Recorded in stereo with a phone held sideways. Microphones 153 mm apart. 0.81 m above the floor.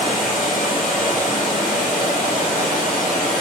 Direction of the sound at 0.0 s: 60° left (ahead or behind).